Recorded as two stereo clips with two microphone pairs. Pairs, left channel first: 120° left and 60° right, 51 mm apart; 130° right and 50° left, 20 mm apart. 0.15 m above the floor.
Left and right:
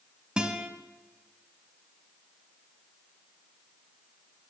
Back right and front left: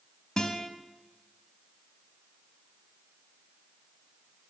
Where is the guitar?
115° right, 0.9 m.